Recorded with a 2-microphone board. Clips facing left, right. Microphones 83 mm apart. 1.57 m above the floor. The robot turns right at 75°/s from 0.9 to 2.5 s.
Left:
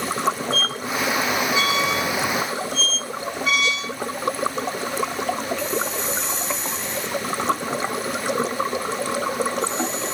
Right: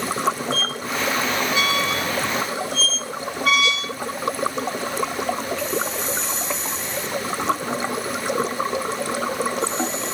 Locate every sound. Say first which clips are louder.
0.5 s a squeak: left 1 dB; 25° left (ahead or behind), 1.3 m; by 3.9 s 55° right (ahead or behind), 1.3 m